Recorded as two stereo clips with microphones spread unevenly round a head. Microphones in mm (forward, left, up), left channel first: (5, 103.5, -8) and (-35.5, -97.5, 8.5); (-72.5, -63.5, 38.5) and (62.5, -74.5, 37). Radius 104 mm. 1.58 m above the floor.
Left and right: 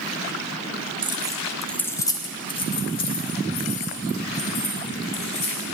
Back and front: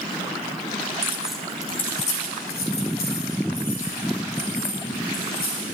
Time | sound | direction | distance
1.0 | keys jangling | 60° right | 0.7 m